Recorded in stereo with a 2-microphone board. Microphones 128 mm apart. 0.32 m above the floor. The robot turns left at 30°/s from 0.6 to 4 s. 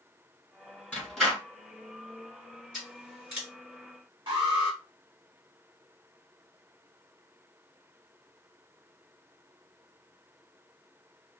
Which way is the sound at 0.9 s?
10° left (ahead or behind).